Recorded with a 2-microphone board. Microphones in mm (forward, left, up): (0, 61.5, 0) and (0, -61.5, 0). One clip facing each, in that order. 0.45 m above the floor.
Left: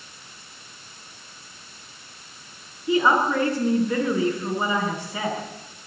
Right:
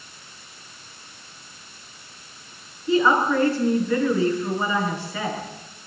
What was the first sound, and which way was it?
A woman speaking, 15° left (ahead or behind).